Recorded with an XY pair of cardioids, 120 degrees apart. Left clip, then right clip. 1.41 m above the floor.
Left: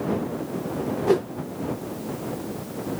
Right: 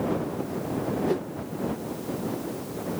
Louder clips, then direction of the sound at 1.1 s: Left 10 dB; 40° left.